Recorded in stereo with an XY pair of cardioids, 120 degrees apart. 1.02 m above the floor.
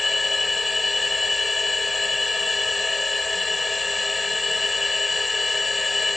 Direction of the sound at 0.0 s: 15° left.